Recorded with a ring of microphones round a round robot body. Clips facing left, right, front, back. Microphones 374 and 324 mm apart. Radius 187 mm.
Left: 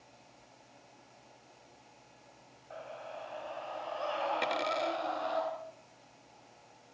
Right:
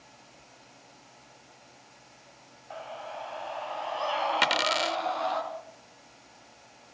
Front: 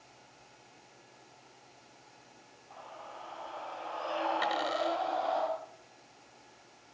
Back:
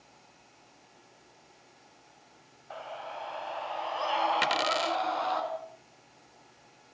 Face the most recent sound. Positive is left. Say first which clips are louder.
# right 3 dB, back 1 dB
turn(degrees=-135)